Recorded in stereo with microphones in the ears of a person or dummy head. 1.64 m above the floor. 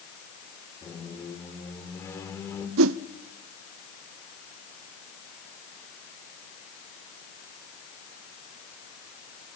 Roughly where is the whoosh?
Right.